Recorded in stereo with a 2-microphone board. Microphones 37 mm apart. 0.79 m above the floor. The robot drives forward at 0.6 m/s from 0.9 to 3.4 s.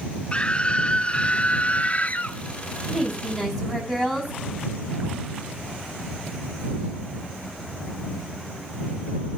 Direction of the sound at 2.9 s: 5° right (ahead or behind).